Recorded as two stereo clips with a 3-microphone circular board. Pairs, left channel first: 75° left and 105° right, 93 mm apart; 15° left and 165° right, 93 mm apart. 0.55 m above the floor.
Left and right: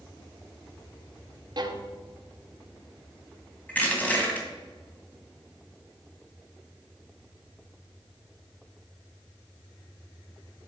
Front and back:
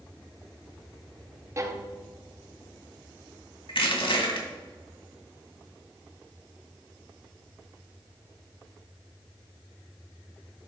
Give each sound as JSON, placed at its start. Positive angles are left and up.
{"t": 1.6, "sound": "a violin", "azimuth_deg": -120, "distance_m": 0.8}
{"t": 3.7, "sound": "crushing", "azimuth_deg": 5, "distance_m": 2.0}